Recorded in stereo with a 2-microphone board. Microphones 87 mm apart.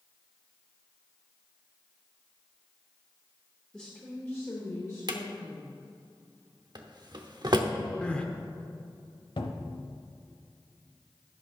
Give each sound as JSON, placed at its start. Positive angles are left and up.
{"t": 3.7, "sound": "a woman speaking", "side_deg": 10, "distance_m": 1.2}
{"t": 5.1, "sound": "a drawer", "side_deg": -55, "distance_m": 0.8}
{"t": 8.0, "sound": "crying", "side_deg": 10, "distance_m": 0.7}
{"t": 9.4, "sound": "a cupboard door", "side_deg": 75, "distance_m": 0.8}